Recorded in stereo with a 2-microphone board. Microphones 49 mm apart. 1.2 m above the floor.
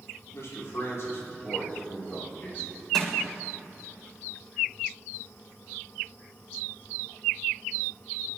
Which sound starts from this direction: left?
A man speaking, at 0.3 s.